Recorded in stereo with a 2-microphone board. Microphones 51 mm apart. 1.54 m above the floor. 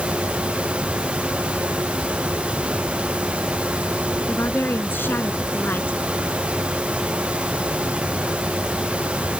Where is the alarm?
No alarm in this recording.